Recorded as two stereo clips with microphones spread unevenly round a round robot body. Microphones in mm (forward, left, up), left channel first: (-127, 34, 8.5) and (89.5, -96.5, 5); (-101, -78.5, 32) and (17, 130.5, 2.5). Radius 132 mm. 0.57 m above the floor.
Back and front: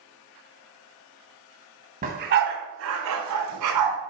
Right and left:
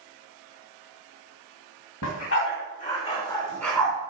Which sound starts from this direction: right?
A dog barking, at 2.0 s.